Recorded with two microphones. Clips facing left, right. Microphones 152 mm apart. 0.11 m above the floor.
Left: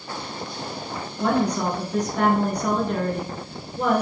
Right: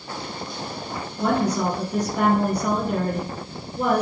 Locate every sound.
1.2 s a woman speaking: 5° right (ahead or behind), 1.4 m